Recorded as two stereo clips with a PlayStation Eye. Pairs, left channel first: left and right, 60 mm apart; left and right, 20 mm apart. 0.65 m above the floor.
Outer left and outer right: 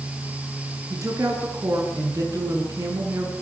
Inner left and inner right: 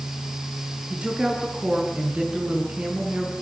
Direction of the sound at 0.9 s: 60° right (ahead or behind).